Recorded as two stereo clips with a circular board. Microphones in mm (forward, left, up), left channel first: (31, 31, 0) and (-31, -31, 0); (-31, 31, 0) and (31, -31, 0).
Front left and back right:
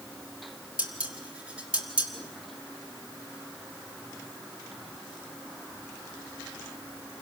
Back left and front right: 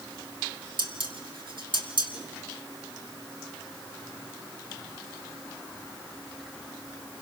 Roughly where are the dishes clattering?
Ahead right.